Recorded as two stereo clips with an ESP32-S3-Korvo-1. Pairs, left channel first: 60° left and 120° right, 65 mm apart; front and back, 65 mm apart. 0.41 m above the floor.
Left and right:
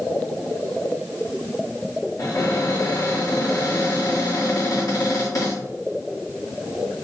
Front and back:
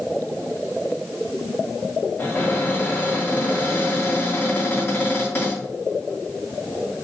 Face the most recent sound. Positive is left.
turn(degrees=55)